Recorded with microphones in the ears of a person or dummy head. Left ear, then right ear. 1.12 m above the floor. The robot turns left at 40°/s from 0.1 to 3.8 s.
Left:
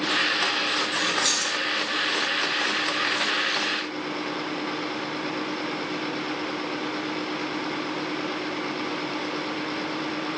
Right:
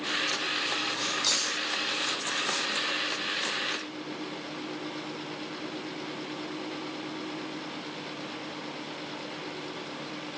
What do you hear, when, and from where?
0.9 s keys jangling: 45° left (ahead or behind), 1.3 m; by 1.6 s 65° left (ahead or behind), 1.3 m